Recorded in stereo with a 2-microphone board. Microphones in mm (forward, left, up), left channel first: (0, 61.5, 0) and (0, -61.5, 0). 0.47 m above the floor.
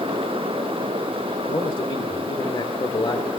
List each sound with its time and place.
1.5 s a man speaking: 40° left (ahead or behind), 1.7 m